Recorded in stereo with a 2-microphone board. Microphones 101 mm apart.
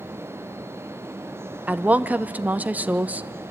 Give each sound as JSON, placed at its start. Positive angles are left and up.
{"t": 1.7, "sound": "a woman speaking", "side_deg": -15, "distance_m": 0.7}